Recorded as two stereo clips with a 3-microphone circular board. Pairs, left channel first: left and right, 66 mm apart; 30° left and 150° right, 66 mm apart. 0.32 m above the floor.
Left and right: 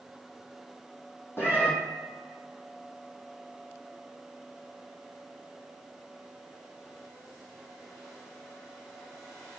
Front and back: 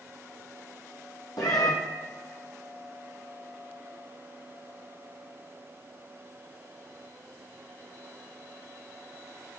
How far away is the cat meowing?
About 1.2 m.